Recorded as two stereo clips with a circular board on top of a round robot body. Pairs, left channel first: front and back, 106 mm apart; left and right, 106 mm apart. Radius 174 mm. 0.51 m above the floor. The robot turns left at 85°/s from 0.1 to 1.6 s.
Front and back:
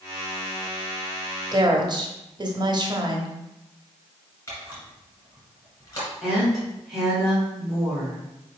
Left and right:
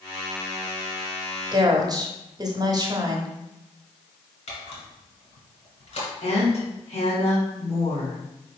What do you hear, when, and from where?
1.5 s a woman speaking: 130° right, 1.1 m; by 3.3 s 140° right, 1.1 m
4.5 s a camera shutter: 65° left, 2.0 m
6.2 s a woman speaking: 90° left, 2.5 m